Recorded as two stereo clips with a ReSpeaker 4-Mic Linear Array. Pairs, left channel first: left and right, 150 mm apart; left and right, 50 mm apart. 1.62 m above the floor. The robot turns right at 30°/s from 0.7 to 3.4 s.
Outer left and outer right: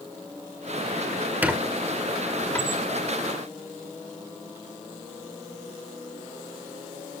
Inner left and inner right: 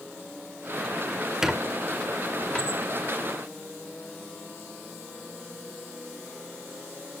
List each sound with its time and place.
1.4 s a squeak: 10° right (ahead or behind), 1.7 m; by 2.8 s 20° left (ahead or behind), 1.7 m